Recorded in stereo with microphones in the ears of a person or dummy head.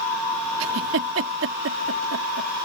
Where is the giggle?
70° right (ahead or behind).